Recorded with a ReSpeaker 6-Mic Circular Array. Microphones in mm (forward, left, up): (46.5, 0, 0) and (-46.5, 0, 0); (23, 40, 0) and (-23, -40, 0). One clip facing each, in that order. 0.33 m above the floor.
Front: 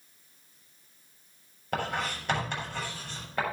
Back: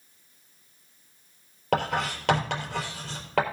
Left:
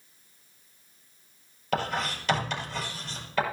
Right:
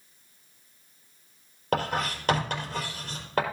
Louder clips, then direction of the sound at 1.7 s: Back 5 dB, right 1 dB; 165° right.